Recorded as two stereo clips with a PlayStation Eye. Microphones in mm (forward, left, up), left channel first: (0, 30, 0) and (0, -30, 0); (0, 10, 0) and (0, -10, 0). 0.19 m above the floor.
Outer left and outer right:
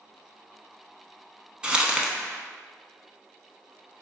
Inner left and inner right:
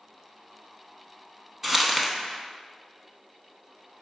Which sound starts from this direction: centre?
Crumpling, at 1.6 s.